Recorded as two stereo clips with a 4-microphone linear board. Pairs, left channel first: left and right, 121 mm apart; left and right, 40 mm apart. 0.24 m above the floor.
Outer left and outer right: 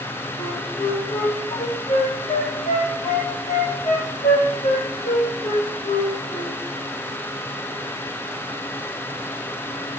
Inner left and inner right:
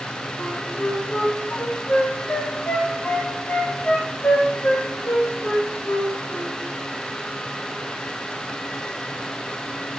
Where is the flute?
70° left (ahead or behind), 5 m.